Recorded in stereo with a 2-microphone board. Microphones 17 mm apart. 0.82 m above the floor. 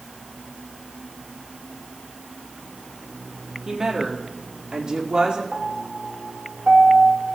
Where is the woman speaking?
35° right (ahead or behind), 1.5 m; by 5.4 s 65° right (ahead or behind), 2 m.